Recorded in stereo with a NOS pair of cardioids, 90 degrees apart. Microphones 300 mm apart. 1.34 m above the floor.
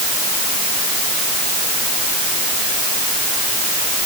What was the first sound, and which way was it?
Only background noise.